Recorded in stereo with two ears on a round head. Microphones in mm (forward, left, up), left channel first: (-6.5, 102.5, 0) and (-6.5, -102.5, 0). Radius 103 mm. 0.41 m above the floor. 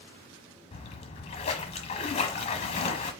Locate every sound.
0.7 s a splash: 30° left (ahead or behind), 1.0 m